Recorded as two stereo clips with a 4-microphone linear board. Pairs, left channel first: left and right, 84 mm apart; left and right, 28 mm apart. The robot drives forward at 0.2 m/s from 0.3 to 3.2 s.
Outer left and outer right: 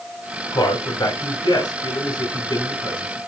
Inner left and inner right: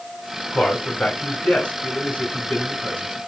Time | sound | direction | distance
0.5 | a man speaking | 55° left (ahead or behind) | 3 m